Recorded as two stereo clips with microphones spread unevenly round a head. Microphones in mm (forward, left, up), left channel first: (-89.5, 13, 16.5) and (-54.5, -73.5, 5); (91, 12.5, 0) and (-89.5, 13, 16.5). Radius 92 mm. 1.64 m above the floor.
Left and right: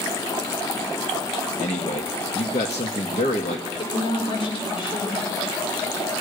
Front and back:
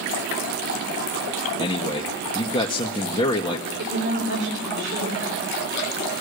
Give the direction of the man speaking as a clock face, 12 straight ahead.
10 o'clock.